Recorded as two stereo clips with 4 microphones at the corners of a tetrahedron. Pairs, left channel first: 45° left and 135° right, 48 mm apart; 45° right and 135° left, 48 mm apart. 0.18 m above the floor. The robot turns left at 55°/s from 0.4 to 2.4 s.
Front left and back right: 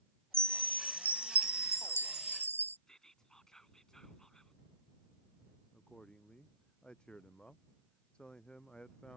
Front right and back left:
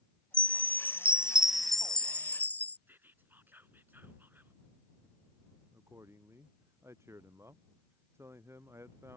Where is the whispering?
120° left.